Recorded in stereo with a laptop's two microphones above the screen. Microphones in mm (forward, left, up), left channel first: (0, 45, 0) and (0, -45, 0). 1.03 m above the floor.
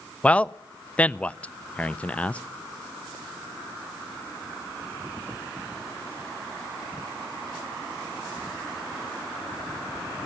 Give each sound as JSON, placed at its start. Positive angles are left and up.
{"t": 0.2, "sound": "a man speaking", "side_deg": 15, "distance_m": 0.6}